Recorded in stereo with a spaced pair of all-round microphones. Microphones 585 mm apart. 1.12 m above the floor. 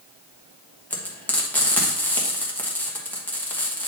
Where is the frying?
5° left (ahead or behind), 1.3 m.